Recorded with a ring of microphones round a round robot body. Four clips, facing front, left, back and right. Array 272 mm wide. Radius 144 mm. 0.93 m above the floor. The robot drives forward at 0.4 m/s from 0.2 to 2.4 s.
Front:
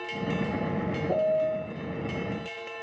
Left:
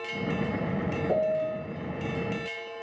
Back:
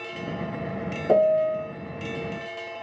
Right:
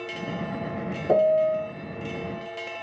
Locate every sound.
1.1 s a piano: 145° right, 0.9 m; by 1.7 s 155° right, 1.1 m